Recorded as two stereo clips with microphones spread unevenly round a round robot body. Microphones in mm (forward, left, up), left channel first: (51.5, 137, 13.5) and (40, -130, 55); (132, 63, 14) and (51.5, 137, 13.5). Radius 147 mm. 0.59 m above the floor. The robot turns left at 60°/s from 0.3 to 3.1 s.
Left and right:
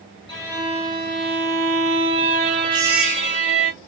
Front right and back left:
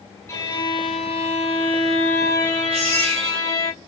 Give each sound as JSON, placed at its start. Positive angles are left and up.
{"t": 0.3, "sound": "a violin", "azimuth_deg": 20, "distance_m": 2.5}
{"t": 2.7, "sound": "a baby crying", "azimuth_deg": -165, "distance_m": 1.7}